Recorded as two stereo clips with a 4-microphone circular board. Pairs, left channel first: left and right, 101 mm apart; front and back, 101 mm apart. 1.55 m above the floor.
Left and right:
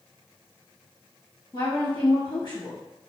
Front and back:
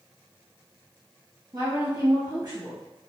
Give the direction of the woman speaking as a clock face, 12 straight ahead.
8 o'clock.